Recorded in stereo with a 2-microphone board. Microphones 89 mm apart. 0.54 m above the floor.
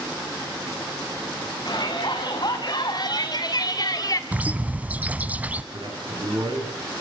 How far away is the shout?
About 5 m.